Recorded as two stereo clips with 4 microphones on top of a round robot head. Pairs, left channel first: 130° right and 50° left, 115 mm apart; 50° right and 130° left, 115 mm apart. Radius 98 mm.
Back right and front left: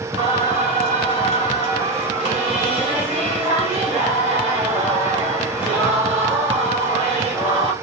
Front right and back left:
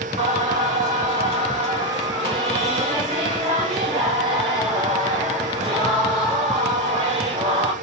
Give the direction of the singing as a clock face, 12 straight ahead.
9 o'clock.